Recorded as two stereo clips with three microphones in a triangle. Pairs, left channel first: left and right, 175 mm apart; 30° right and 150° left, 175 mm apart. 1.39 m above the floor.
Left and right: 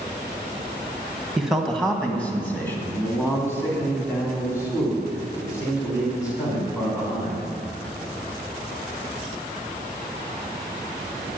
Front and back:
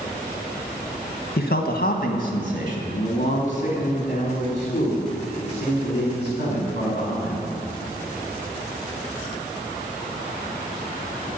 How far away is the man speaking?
About 1.2 m.